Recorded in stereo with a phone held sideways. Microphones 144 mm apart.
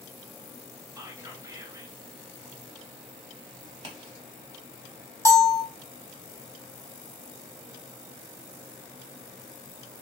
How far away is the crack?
About 1.3 m.